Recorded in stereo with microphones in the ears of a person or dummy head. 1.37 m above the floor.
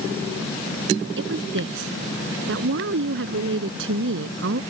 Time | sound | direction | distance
1.2 | a woman speaking | 85° right | ?